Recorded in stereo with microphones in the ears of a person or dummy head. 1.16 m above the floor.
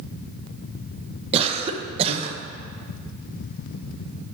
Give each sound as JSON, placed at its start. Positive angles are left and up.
{"t": 1.3, "sound": "a cough", "side_deg": -30, "distance_m": 0.7}